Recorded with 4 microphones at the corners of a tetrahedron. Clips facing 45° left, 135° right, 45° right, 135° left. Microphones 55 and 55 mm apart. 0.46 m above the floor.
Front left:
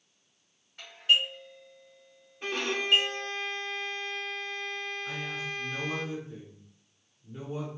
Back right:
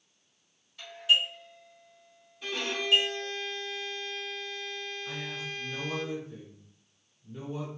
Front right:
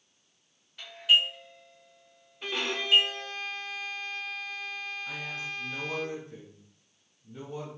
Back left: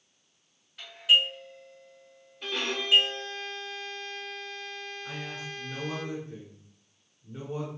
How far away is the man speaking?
About 1.4 m.